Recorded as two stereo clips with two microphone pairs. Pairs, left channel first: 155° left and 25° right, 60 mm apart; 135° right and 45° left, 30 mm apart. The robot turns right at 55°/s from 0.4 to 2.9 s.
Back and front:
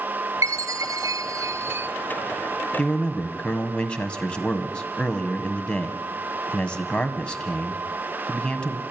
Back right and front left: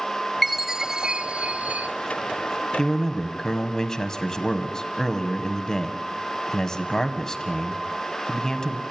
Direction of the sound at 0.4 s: 45° right.